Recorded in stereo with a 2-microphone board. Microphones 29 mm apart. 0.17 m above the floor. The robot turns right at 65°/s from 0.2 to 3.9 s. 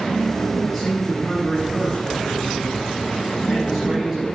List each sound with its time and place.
0.6 s a man speaking: 10° right, 5 m; by 4.2 s 155° right, 5 m